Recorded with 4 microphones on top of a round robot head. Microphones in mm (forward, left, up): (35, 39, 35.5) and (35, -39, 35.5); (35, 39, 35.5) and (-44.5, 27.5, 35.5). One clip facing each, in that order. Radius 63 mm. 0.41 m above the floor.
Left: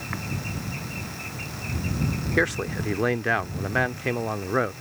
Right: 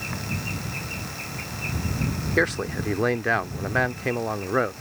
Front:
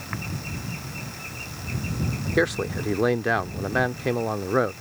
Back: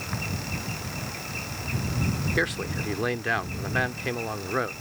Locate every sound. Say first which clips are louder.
2.4 s a man speaking: right 1 dB, front 8 dB; 15° right